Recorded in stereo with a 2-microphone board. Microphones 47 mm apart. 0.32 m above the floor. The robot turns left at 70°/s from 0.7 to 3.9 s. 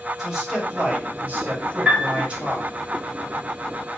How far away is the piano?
About 2 m.